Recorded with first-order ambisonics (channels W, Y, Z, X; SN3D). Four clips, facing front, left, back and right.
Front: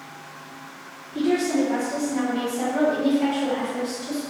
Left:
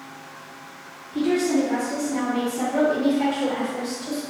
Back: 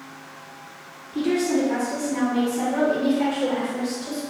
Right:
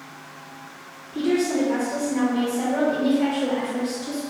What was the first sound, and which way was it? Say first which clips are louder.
A woman speaking: left 1 dB, even; 105° left.